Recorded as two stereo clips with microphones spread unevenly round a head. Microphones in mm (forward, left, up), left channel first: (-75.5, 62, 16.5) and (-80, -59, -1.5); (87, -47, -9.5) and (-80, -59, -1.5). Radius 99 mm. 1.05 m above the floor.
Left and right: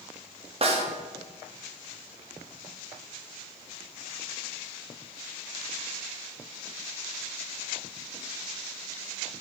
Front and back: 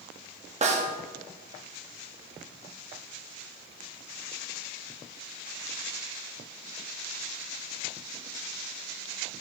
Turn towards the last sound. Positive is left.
turn(degrees=-125)